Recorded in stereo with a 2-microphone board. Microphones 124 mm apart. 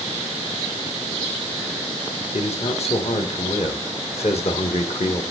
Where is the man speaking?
55° left (ahead or behind), 2 m.